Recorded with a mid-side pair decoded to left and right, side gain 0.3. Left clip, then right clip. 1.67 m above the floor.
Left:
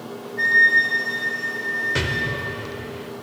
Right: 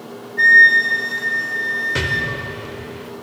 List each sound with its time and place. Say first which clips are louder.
0.4 s a flute: right 6 dB; 65° right, 6 m
1.9 s an explosion: right 3 dB; 15° right, 0.9 m